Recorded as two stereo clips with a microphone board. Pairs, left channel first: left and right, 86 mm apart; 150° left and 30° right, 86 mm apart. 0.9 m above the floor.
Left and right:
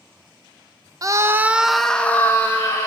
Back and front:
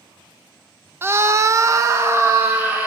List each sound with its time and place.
1.0 s a scream: 80° right, 0.5 m; by 2.9 s 35° left, 1.0 m